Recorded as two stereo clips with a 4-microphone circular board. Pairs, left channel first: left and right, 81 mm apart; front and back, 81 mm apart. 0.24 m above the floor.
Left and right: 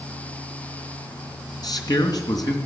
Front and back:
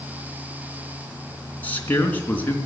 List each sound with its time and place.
1.6 s a man speaking: 65° left, 3 m